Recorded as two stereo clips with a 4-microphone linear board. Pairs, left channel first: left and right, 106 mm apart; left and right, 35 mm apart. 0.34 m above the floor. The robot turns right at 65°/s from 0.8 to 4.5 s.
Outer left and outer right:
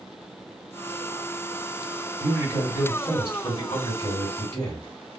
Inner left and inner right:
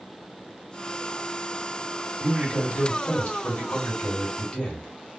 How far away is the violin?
No violin in this recording.